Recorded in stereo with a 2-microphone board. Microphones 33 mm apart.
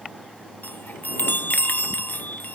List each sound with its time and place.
0.6 s a chime: 60° left (ahead or behind)